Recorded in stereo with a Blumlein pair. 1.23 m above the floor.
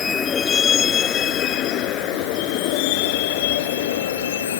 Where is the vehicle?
20° left; by 4.6 s 60° left.